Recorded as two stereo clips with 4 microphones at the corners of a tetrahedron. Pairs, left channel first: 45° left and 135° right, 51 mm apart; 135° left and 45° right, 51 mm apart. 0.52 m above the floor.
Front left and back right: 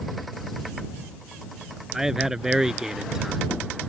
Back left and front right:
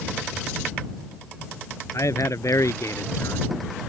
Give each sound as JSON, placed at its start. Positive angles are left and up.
{"t": 1.9, "sound": "a man speaking", "azimuth_deg": 145}